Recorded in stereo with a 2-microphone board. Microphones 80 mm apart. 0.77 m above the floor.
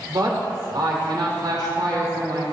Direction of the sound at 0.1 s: 60° right (ahead or behind).